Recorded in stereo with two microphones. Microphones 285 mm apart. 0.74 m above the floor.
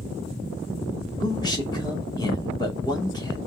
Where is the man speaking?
15° left (ahead or behind), 2 m.